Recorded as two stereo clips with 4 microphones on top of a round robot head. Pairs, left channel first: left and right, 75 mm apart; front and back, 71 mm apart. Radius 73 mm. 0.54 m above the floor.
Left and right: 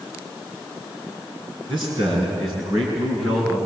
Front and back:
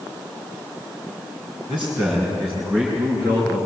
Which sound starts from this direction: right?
A man speaking, at 1.7 s.